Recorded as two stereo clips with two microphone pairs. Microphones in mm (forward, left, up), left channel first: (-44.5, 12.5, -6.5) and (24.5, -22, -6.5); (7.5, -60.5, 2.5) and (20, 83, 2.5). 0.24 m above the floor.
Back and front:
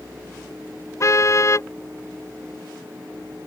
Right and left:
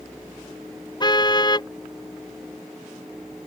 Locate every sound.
1.0 s a car horn: 155° right